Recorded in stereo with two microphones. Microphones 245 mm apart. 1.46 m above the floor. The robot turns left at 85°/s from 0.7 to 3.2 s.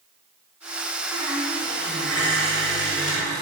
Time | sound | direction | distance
1.1 | a squeak | 165° right | 7.5 m